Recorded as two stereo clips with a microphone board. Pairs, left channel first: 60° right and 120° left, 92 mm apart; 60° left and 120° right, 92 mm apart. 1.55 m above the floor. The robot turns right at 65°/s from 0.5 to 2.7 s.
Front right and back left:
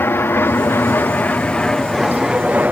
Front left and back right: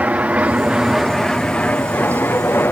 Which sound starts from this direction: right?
An aircraft, at 0.0 s.